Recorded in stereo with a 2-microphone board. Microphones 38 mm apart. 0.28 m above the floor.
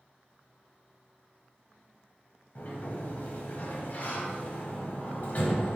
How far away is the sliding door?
About 1.1 m.